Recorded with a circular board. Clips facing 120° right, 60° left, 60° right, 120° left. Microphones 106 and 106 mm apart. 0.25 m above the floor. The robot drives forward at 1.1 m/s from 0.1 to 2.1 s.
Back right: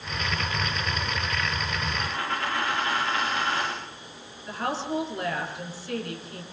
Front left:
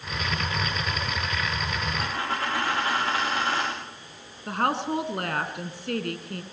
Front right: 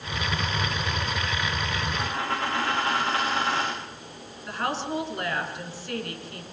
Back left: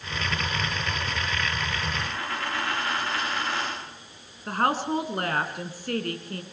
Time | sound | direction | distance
2.0 | a dropped coin | 5° left | 7.5 m
4.5 | a woman speaking | 80° left | 3.5 m